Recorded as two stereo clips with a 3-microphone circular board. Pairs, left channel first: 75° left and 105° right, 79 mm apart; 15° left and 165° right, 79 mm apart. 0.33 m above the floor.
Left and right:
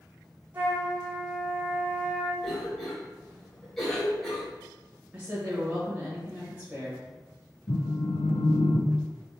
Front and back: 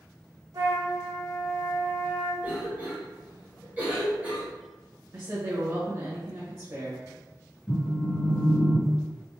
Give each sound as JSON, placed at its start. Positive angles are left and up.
{"t": 0.5, "sound": "a flute", "azimuth_deg": -170, "distance_m": 1.7}
{"t": 2.4, "sound": "a cough", "azimuth_deg": 155, "distance_m": 1.0}
{"t": 5.1, "sound": "a woman speaking", "azimuth_deg": -165, "distance_m": 1.0}
{"t": 7.7, "sound": "a phone buzzing", "azimuth_deg": 75, "distance_m": 0.8}